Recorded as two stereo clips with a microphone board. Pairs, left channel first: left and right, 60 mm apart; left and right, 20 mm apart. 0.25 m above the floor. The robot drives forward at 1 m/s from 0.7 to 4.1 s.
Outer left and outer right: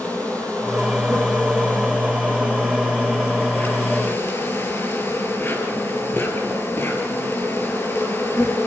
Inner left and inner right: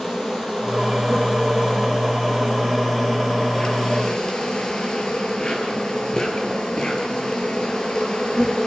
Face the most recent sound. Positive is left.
turn(degrees=40)  # may be behind; listen again after turning